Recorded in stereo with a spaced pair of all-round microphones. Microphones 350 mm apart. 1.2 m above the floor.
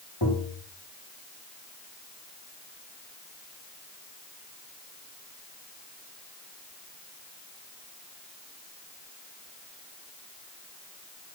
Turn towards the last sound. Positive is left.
turn(degrees=80)